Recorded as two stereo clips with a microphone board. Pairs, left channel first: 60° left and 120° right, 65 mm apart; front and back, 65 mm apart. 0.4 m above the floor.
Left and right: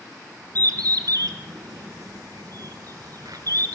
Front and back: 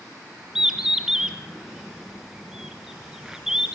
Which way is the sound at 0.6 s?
100° right.